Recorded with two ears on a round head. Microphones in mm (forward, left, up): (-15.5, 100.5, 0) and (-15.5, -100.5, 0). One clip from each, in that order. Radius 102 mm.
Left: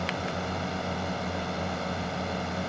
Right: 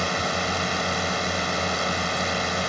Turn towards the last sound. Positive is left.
turn(degrees=-65)  # may be behind; listen again after turning